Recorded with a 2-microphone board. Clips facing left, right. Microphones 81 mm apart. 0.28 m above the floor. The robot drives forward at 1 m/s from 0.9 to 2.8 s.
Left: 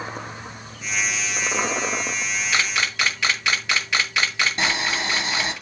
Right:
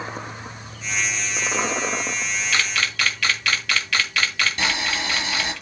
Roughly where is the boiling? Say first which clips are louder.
Left 1 dB; left.